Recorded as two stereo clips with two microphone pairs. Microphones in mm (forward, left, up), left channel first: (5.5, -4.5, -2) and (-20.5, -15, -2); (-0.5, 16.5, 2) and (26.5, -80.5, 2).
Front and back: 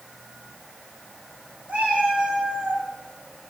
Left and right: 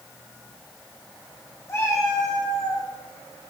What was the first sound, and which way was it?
A cat meowing, 170° left.